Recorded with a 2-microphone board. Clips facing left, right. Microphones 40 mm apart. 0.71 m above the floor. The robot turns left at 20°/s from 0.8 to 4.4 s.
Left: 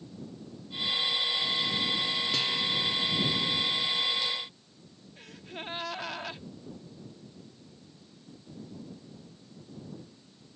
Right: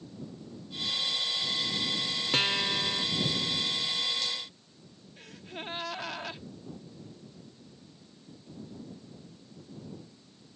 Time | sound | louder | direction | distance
2.3 | a guitar | right 5 dB | 45° right (ahead or behind) | ?
5.2 | a gasp | even | 5° left (ahead or behind) | ?